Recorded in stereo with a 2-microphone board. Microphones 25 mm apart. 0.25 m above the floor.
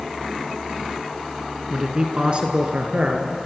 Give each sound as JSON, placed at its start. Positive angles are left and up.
{"t": 1.7, "sound": "a man speaking", "side_deg": -30, "distance_m": 2.0}